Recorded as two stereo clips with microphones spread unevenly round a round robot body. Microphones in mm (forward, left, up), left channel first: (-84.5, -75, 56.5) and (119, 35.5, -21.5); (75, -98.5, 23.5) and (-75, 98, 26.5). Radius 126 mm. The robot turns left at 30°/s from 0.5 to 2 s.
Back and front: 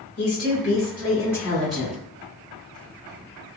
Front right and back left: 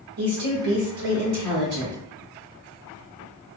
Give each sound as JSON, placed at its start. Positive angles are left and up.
{"t": 0.2, "sound": "a woman speaking", "azimuth_deg": 145, "distance_m": 1.4}